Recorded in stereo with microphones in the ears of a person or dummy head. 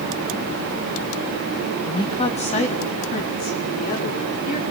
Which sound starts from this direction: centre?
A woman speaking, at 1.8 s.